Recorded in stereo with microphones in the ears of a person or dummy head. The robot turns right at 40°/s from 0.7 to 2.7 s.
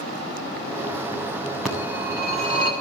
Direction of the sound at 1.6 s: Centre (ahead or behind).